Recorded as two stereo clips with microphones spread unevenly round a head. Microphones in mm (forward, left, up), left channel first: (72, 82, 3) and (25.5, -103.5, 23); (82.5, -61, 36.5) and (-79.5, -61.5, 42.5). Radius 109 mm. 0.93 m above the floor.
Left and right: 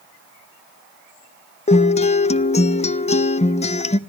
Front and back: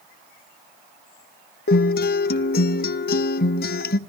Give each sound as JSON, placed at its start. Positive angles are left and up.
{"t": 1.7, "sound": "a guitar", "azimuth_deg": 25, "distance_m": 0.7}